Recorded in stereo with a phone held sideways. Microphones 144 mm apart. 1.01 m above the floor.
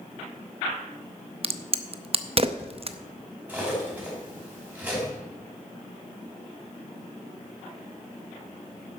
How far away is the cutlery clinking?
About 4.5 m.